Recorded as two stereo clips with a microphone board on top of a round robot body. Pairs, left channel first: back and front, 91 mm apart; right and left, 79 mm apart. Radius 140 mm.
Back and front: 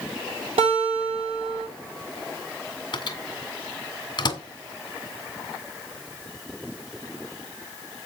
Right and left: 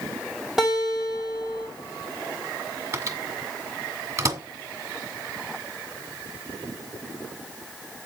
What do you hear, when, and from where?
0.6 s a guitar: 5° left, 7.5 m
2.9 s a microwave: 140° left, 1.8 m